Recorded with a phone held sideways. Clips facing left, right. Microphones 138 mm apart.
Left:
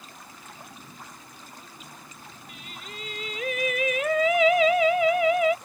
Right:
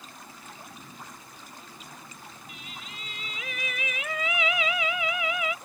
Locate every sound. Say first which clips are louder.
2.5 s singing: left 4 dB; 50° left (ahead or behind)